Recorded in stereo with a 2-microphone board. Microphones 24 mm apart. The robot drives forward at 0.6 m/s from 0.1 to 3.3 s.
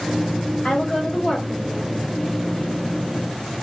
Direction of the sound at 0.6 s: 45° left (ahead or behind).